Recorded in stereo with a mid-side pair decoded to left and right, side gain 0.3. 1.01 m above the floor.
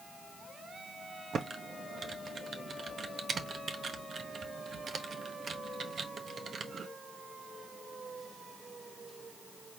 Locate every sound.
1.3 s typing on a keyboard: 65° right, 0.9 m